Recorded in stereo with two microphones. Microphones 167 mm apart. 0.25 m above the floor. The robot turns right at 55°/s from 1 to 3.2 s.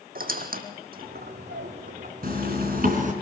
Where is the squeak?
60° right (ahead or behind), 1.5 m.